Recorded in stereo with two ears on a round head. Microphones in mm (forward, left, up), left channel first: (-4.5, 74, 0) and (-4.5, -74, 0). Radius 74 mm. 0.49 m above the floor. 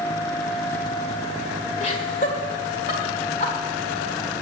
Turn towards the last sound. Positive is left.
turn(degrees=45)  # may be behind; listen again after turning